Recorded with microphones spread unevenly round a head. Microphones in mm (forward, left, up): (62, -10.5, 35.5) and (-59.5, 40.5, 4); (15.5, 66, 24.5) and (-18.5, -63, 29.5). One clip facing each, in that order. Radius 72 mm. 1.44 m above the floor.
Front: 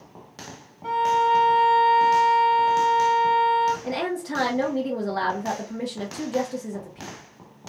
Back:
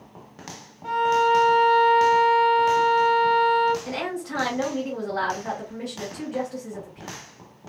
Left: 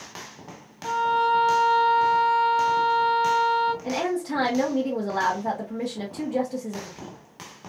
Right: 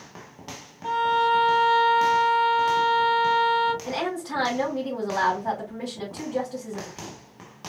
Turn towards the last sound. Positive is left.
turn(degrees=20)